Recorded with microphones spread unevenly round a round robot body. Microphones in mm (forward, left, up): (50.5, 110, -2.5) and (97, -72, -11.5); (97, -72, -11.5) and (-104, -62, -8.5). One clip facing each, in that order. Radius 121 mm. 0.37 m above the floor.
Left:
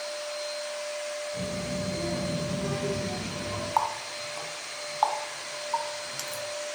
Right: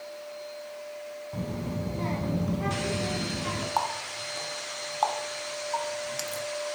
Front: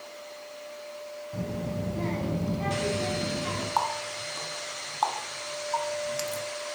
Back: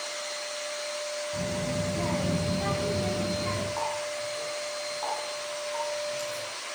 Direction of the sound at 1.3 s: 70° right.